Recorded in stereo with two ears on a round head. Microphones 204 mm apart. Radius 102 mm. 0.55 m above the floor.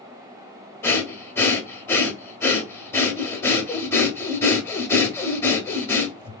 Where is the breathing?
10° left (ahead or behind), 1.1 m.